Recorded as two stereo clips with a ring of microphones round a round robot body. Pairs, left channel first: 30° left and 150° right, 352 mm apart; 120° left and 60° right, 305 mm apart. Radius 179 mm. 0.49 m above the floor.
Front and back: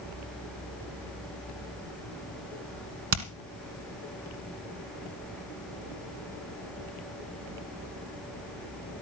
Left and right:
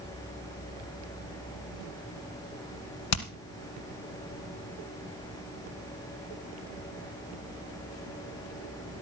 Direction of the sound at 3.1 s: 155° left.